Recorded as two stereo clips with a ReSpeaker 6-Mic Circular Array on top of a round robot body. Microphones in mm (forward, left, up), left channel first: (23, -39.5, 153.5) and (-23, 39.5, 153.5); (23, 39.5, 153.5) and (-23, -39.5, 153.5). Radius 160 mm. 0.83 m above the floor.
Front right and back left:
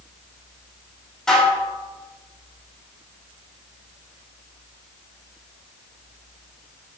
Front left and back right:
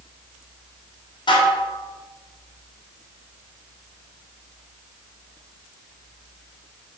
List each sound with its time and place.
1.3 s dishes clattering: 25° left, 2 m